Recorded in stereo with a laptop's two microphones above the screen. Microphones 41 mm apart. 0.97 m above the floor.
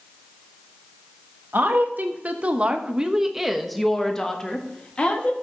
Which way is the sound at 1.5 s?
55° right (ahead or behind).